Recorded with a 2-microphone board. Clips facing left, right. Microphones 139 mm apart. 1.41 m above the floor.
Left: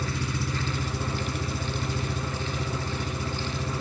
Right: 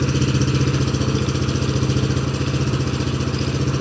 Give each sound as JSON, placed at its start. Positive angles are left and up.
{"t": 0.0, "sound": "an engine running", "side_deg": -80}